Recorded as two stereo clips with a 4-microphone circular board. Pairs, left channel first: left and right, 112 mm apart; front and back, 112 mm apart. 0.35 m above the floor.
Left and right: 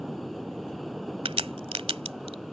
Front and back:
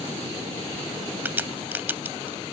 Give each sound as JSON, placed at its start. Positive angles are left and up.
{"t": 1.2, "sound": "a crack", "azimuth_deg": -110}